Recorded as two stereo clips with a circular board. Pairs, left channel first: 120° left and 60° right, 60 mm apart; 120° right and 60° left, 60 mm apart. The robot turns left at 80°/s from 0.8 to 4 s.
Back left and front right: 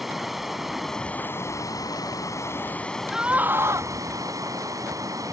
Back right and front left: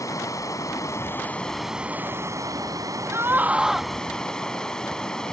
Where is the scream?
20° left; by 3.9 s 45° right.